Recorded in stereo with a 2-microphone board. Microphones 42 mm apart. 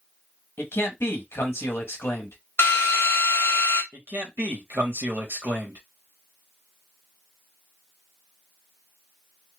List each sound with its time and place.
0.6 s a man speaking: 65° left (ahead or behind), 1.3 m
2.6 s a drill: 65° left (ahead or behind), 1.2 m
3.9 s a man speaking: 60° right (ahead or behind), 1.5 m